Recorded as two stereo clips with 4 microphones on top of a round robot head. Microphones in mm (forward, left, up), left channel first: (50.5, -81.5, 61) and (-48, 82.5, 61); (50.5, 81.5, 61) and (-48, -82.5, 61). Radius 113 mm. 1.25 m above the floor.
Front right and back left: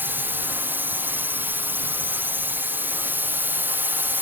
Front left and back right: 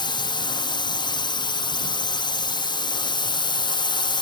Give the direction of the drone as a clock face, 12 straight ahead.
10 o'clock.